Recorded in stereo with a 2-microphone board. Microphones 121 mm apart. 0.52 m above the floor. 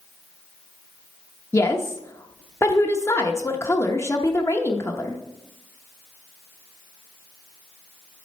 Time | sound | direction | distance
1.5 | a woman speaking | 20° left (ahead or behind) | 0.8 m